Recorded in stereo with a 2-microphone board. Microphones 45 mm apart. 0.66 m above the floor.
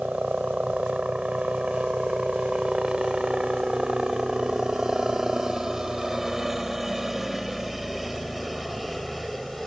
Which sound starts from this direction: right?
A helicopter, at 0.0 s.